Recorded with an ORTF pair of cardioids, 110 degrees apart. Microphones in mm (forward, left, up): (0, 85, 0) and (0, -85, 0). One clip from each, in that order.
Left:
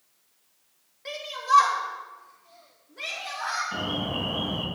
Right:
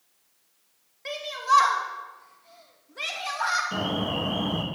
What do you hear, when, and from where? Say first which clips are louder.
1.1 s a shout: right 1 dB; 15° right, 3 m; by 3.6 s 50° right, 3 m
3.7 s an alarm: right 1 dB; 55° right, 2.5 m